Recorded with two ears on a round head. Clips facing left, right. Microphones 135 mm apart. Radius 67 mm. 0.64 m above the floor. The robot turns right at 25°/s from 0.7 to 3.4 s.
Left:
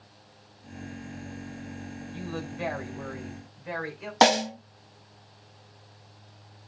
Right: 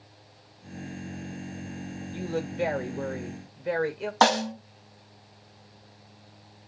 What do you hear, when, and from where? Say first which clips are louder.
2.1 s a woman speaking: right 6 dB; 110° right, 2.5 m; by 4.1 s 80° right, 2.5 m
4.2 s a snare drum: left 1 dB; 20° left (ahead or behind), 0.5 m